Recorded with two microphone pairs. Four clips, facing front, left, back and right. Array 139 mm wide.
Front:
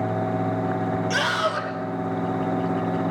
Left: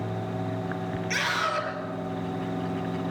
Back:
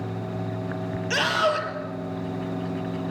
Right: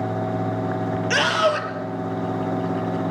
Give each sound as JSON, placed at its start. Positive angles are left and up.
{"t": 1.1, "sound": "a scream", "azimuth_deg": -105, "distance_m": 3.5}